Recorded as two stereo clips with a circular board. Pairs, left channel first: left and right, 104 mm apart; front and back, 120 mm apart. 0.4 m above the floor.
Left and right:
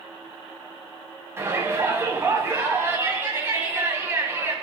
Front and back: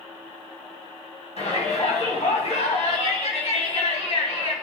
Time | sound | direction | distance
1.4 | a shout | 25° right | 3 m